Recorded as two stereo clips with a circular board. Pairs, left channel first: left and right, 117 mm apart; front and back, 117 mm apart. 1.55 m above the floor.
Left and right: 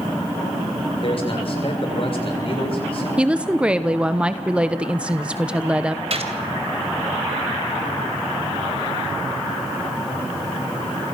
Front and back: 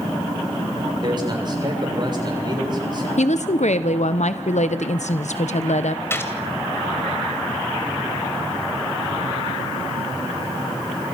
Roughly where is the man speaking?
Behind left.